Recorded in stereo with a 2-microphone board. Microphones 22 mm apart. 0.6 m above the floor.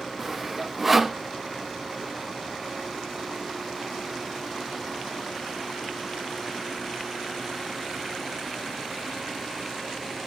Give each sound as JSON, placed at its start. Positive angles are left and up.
{"t": 0.2, "sound": "sawing", "side_deg": -10, "distance_m": 0.8}